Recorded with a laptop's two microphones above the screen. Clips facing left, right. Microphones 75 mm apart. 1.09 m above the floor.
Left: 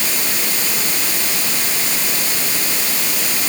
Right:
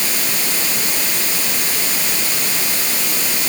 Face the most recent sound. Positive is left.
No sound to turn to.